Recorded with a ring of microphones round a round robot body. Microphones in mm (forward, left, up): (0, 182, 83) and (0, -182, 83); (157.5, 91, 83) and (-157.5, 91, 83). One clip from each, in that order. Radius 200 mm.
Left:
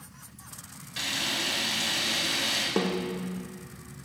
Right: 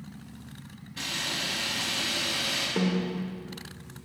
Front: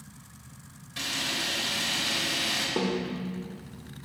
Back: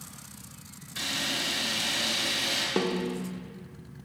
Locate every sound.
1.0 s a camera shutter: 105° left, 4 m
2.8 s a snare drum: 125° left, 0.6 m